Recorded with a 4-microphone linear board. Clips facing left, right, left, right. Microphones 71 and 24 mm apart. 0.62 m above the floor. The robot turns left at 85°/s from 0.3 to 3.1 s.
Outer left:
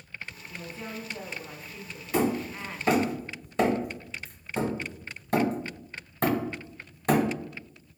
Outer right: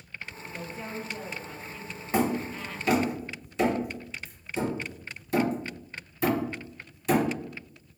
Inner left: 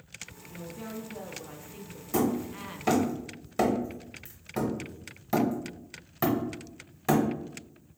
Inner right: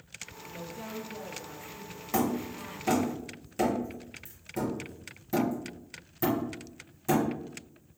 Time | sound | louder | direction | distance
0.5 | a woman speaking | outer right 2 dB, even | 20° right (ahead or behind) | 0.6 m
2.1 | hammering | even, inner left 2 dB | 30° right (ahead or behind) | 1.3 m